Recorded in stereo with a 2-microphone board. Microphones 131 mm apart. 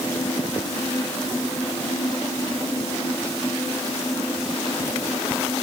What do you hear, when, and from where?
Only background noise.